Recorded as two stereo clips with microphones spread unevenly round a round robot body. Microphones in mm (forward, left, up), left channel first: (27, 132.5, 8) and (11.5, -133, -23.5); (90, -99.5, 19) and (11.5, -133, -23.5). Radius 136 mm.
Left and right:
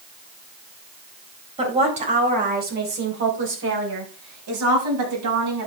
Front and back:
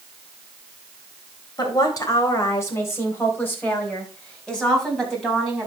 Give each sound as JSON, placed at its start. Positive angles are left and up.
{"t": 1.6, "sound": "a woman speaking", "azimuth_deg": -25, "distance_m": 3.5}